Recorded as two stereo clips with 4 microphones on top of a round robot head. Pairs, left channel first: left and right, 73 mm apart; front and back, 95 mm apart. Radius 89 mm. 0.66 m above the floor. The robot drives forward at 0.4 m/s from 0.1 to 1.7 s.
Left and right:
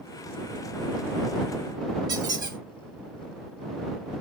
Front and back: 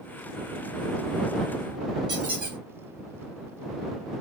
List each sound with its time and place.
2.1 s a squeak: 135° right, 1.3 m